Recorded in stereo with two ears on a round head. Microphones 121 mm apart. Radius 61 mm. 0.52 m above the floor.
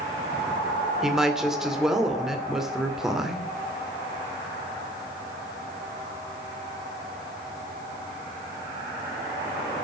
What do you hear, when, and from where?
1.0 s a woman speaking: 5° right (ahead or behind), 1.8 m